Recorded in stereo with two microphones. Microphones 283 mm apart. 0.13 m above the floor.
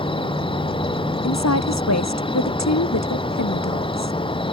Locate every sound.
0.0 s an insect: 20° left (ahead or behind)
1.2 s a woman speaking: 70° left (ahead or behind)